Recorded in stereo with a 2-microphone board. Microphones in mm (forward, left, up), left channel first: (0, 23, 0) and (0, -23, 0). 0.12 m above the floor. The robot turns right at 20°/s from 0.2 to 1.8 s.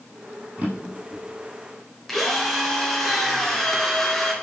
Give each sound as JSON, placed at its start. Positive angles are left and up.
{"t": 0.6, "sound": "a drawer", "side_deg": -30, "distance_m": 3.0}
{"t": 2.1, "sound": "a drill", "side_deg": 5, "distance_m": 1.5}